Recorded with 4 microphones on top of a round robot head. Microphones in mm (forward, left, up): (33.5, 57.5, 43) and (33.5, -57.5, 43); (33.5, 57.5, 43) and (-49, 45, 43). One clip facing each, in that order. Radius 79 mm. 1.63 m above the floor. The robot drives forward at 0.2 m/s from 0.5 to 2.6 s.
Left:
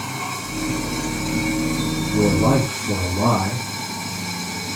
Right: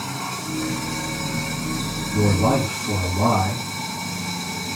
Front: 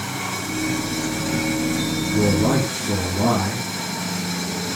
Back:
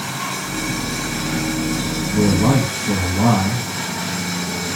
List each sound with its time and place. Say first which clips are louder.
0.0 s running water: left 1 dB, back 2 dB; 165° right, 7 m
2.1 s a man speaking: left 2 dB, back 3 dB; 175° left, 3.5 m